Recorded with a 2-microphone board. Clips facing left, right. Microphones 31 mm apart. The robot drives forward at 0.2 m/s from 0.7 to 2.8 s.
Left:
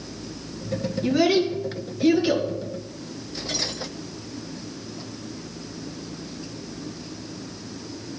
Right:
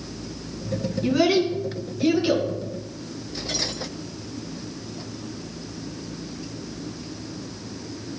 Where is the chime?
I don't hear a chime.